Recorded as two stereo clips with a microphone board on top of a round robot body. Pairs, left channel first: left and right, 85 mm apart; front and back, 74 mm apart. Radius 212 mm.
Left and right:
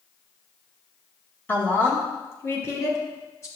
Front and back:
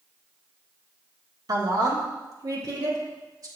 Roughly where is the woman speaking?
Behind left.